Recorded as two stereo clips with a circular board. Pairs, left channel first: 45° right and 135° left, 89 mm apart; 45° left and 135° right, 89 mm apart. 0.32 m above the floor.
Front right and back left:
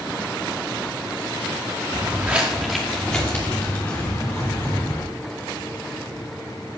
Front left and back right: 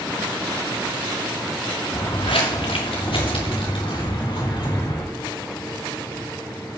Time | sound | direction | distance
1.9 | footsteps | 70° left | 1.8 m